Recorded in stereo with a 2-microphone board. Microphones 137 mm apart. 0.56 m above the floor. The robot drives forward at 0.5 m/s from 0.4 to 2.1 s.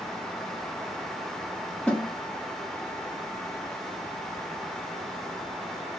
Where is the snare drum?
10° left (ahead or behind), 0.7 m.